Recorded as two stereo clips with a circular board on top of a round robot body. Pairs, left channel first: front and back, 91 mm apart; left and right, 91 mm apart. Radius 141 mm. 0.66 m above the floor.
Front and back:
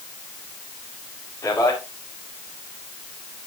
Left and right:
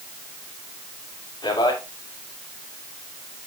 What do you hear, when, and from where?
1.4 s a man speaking: 55° left, 3.5 m